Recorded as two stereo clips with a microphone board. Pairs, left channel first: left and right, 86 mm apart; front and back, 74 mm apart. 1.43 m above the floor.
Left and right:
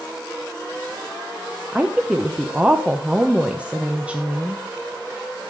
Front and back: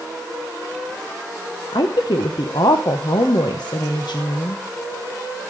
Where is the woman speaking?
15° right, 1.0 m.